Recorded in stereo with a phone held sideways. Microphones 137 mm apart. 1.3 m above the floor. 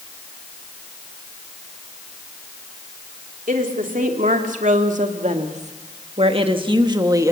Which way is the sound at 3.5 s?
80° right.